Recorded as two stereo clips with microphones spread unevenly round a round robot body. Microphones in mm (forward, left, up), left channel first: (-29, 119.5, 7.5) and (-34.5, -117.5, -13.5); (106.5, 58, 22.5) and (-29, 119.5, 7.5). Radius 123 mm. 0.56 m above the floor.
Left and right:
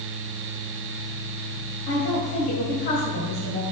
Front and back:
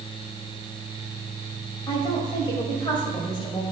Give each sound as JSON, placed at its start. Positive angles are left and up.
{"t": 1.9, "sound": "a woman speaking", "azimuth_deg": 35, "distance_m": 3.0}